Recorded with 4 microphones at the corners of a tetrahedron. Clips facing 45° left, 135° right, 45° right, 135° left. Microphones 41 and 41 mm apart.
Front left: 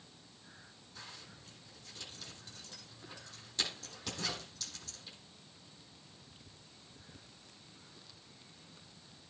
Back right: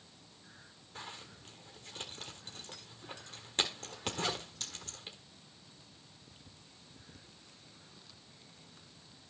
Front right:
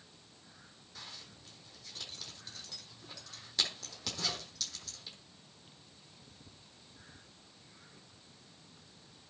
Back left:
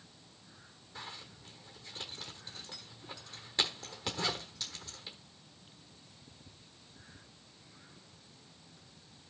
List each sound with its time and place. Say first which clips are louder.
0.9 s a zipper: back right 5 dB, back left 4 dB; 160° right, 1.4 m